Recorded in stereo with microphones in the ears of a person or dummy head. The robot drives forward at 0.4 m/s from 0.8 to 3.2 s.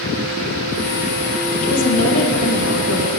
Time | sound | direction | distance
1.6 | a woman speaking | 85° left | 2 m